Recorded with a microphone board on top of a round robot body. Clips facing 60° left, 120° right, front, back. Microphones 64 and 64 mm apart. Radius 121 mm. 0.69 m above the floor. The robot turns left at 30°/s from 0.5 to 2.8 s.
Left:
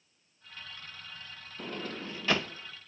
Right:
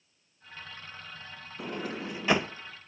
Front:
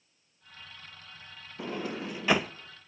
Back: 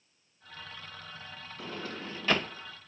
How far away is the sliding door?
About 0.7 m.